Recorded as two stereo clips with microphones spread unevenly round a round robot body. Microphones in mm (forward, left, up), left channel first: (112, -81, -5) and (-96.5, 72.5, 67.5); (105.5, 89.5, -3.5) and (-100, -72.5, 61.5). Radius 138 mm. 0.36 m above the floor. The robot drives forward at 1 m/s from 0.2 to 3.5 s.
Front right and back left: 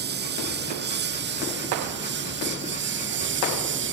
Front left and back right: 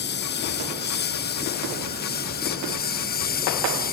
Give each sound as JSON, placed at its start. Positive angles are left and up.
{"t": 0.0, "sound": "a lawn mower", "azimuth_deg": 90}